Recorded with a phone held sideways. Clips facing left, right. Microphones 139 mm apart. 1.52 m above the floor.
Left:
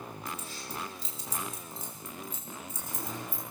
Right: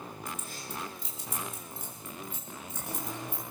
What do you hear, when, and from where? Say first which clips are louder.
0.3 s keys jangling: even; 50° right (ahead or behind), 6 m; by 3.4 s 65° right (ahead or behind), 7 m